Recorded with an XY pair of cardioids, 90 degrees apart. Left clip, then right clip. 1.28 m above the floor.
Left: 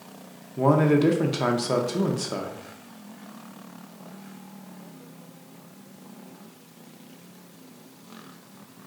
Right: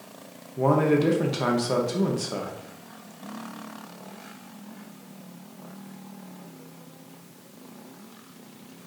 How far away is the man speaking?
About 0.7 m.